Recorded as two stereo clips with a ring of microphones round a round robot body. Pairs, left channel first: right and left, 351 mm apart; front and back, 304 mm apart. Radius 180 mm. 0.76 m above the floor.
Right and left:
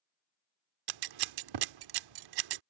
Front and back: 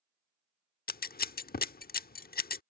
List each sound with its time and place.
0.9 s scissors: 60° left